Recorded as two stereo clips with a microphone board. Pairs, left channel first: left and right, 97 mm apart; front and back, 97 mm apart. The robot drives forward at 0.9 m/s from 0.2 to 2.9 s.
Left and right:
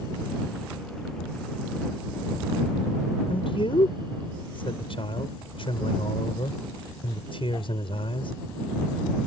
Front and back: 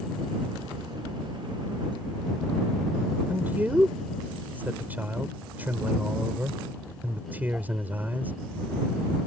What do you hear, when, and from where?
3.3 s a man speaking: 110° left